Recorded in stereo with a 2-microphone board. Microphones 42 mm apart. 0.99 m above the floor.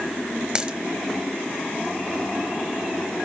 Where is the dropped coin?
20° right (ahead or behind), 0.9 m.